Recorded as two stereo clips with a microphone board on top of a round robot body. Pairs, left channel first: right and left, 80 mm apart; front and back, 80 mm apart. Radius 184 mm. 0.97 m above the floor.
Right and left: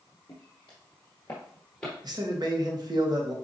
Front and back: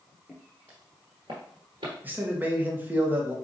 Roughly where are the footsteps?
Right.